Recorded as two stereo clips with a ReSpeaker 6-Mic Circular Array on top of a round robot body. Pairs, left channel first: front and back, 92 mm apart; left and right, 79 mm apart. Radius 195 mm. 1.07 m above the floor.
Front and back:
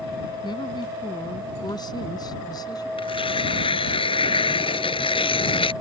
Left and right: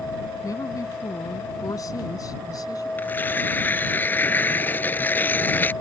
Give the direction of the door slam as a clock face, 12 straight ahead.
I don't hear a door slam.